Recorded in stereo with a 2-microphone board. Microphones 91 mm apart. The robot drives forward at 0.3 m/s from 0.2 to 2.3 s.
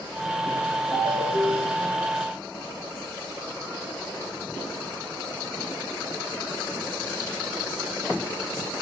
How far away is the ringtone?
About 3 m.